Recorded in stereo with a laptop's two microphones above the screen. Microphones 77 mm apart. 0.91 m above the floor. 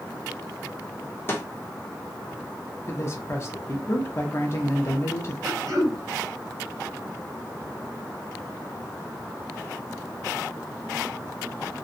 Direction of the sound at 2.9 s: 35° left (ahead or behind).